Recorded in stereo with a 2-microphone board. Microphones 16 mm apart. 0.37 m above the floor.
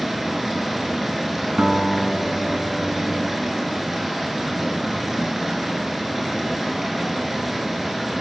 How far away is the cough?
No cough in this recording.